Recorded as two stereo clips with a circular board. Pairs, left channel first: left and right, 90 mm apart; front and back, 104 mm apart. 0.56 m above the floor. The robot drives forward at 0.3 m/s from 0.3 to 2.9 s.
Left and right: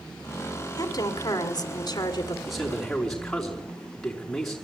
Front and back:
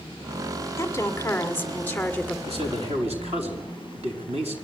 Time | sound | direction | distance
0.8 | a woman speaking | 55° left | 1.9 m
2.5 | a man speaking | straight behind | 5 m